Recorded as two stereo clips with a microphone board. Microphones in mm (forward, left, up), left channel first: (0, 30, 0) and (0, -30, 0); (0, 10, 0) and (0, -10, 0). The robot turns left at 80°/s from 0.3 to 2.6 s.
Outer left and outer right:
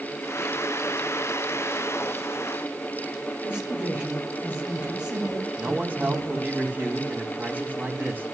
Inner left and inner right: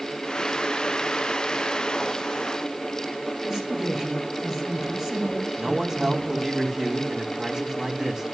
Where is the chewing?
I don't hear chewing.